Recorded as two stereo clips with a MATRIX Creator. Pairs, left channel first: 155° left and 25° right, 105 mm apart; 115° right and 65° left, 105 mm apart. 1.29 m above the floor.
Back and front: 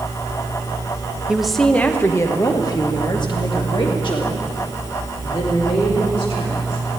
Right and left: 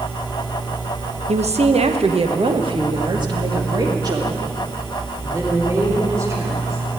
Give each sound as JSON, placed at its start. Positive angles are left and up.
{"t": 1.3, "sound": "a woman speaking", "azimuth_deg": 60, "distance_m": 0.8}